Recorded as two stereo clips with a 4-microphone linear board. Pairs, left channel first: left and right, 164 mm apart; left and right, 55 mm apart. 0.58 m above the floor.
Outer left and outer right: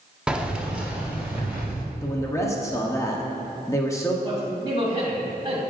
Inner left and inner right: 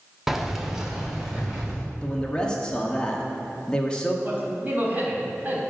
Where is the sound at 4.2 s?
25° right (ahead or behind), 3 m.